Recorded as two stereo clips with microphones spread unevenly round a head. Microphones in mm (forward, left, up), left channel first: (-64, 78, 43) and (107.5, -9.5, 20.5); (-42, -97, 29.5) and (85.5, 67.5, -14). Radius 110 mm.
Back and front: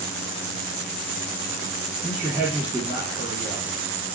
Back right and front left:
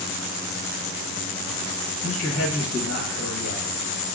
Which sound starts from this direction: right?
A man speaking, at 2.0 s.